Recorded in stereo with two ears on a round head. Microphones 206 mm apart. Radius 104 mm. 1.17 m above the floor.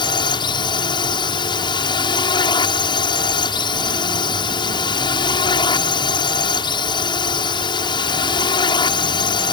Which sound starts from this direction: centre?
A drone, at 0.0 s.